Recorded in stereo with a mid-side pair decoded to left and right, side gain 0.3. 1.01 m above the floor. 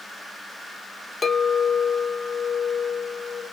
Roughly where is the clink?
Ahead left.